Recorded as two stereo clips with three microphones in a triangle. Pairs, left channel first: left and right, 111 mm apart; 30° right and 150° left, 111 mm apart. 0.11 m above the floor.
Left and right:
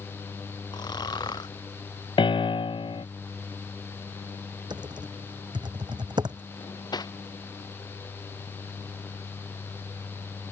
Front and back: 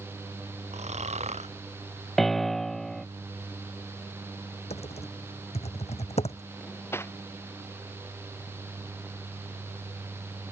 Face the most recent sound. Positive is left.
turn(degrees=35)